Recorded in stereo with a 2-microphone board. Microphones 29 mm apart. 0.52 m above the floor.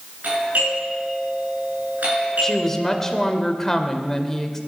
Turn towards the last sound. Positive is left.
turn(degrees=15)  # may be behind; listen again after turning